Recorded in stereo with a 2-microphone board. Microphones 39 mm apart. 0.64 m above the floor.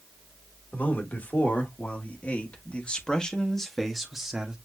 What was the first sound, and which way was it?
A man speaking, 50° left (ahead or behind).